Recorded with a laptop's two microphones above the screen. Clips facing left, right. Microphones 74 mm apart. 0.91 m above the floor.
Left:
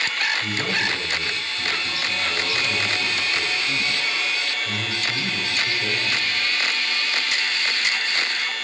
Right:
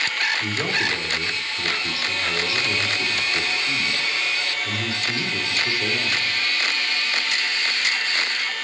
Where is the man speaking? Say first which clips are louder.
Even; 35° right (ahead or behind), 3 m.